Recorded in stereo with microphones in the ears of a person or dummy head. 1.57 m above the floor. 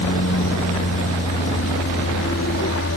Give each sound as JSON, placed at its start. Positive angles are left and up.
{"t": 0.0, "sound": "an aircraft", "side_deg": 60}